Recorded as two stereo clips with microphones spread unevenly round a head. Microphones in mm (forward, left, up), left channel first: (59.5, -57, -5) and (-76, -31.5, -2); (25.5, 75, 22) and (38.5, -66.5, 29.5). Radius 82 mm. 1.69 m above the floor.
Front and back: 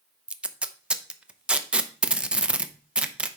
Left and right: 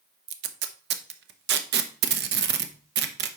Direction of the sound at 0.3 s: 110° right.